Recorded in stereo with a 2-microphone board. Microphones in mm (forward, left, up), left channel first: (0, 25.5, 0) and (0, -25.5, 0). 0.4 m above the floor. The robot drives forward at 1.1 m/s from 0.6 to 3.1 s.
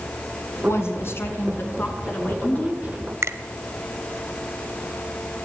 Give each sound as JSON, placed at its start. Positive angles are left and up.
{"t": 0.6, "sound": "a woman speaking", "side_deg": 55, "distance_m": 4.0}
{"t": 3.2, "sound": "a finger snap", "side_deg": -65, "distance_m": 1.3}